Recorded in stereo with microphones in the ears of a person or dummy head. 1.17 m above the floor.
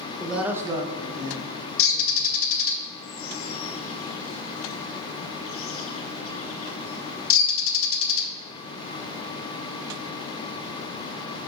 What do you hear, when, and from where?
0.2 s a man speaking: centre (ahead or behind), 1.1 m; by 2.3 s 75° right (ahead or behind), 1.6 m
1.8 s a bird: 65° left (ahead or behind), 0.9 m